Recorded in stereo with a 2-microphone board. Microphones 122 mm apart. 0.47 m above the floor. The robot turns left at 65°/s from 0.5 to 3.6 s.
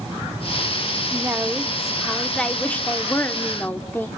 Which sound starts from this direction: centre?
A woman speaking, at 1.1 s.